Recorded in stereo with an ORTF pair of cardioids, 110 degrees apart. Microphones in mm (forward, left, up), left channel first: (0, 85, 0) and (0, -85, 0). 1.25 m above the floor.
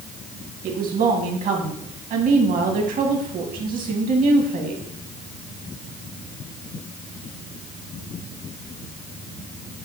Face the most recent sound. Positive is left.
turn(degrees=-60)